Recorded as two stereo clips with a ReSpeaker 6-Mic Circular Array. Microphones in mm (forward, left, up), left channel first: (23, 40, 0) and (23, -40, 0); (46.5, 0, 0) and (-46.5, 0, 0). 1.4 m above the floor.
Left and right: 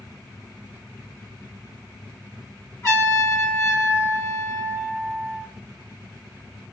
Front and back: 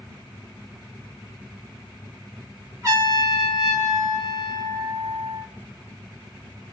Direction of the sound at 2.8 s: 135° left.